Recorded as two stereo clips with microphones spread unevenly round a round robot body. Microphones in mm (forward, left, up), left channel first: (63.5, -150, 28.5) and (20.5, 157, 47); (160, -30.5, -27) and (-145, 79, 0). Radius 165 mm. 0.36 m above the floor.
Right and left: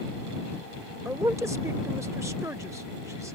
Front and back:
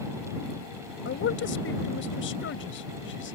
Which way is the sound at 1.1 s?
15° left.